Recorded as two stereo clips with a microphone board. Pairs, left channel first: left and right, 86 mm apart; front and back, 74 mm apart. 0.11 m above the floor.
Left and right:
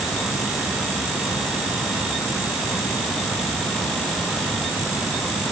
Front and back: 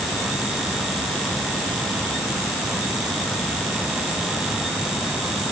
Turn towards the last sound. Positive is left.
No sound to turn to.